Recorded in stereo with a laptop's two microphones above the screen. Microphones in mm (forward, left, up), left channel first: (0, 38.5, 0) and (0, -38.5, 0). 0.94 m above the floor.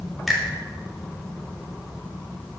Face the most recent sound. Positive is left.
turn(degrees=0)  # may be behind; listen again after turning